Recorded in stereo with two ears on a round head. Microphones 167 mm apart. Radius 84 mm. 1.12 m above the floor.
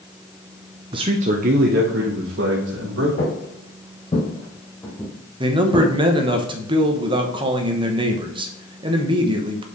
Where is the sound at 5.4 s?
25° right (ahead or behind), 1.0 m.